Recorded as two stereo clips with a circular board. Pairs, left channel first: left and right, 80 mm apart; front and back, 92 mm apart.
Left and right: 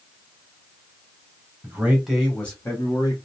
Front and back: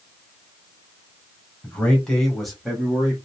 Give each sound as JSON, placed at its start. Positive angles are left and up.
{"t": 1.6, "sound": "a man speaking", "azimuth_deg": -60, "distance_m": 1.1}